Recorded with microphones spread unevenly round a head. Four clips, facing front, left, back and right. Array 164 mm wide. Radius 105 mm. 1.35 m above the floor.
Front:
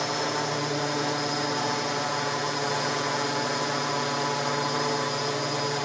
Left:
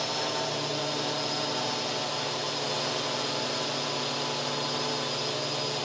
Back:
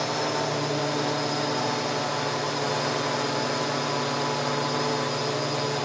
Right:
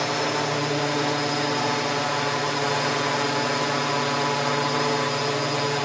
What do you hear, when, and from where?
0.0 s a drone: 95° right